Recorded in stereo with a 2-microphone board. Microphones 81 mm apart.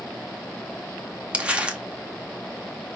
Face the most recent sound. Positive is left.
turn(degrees=-15)  # may be behind; listen again after turning